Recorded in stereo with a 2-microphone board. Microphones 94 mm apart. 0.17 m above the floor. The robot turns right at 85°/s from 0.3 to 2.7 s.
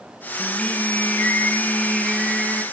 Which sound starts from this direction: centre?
Singing, at 0.4 s.